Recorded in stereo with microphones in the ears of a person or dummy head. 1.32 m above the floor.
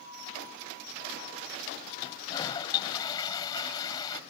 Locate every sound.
2.0 s a toilet flushing: 20° left (ahead or behind)